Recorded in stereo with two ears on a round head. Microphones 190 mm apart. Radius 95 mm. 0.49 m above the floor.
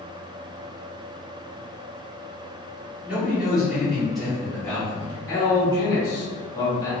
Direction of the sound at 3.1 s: 5° right (ahead or behind).